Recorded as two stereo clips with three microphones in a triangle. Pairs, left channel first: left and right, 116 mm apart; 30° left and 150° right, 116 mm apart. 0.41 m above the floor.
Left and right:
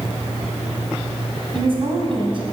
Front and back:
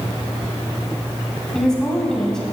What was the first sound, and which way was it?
A woman speaking, 55° right.